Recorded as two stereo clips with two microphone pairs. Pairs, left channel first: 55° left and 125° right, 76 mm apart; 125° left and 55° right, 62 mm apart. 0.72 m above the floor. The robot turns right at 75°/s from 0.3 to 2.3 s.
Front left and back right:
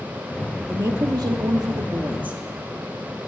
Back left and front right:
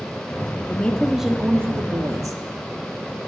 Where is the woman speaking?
175° right, 1.1 m; by 2.4 s 55° right, 1.1 m.